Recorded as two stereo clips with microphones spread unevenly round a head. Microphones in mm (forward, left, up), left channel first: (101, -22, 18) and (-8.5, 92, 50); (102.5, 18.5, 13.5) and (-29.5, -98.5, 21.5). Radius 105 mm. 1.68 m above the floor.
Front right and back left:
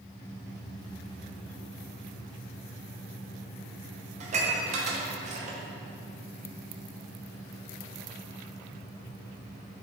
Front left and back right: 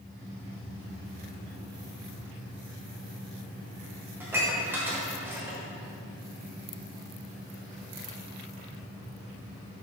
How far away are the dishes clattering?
About 0.9 m.